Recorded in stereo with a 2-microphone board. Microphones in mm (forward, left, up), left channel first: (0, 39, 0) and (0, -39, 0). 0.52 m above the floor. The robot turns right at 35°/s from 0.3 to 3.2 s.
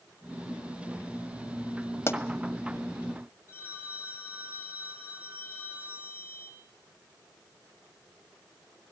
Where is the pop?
35° left (ahead or behind), 1.8 m; by 2.2 s 40° left (ahead or behind), 1.8 m.